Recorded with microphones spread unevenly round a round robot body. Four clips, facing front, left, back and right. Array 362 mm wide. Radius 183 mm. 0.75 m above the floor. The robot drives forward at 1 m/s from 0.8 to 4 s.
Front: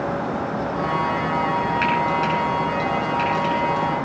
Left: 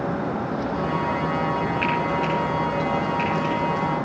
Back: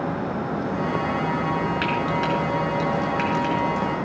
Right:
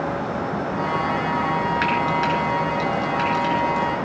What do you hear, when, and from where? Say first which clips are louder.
1.8 s frying: right 2 dB, front 3 dB; 110° right, 6.5 m; by 3.9 s 125° right, 7.5 m